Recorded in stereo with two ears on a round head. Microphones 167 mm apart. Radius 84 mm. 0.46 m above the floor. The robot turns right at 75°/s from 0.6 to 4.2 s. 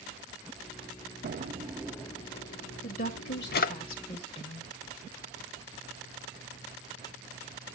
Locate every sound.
1.2 s a drawer: 50° right (ahead or behind), 0.6 m; by 3.7 s 45° left (ahead or behind), 0.6 m
2.8 s a woman speaking: 40° left, 1.7 m; by 4.7 s 140° left, 1.7 m